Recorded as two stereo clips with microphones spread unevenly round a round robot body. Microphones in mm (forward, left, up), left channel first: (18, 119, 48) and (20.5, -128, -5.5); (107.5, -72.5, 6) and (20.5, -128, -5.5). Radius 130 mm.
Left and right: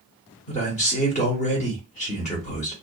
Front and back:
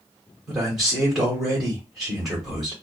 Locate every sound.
0.5 s a man speaking: 145° left, 1.0 m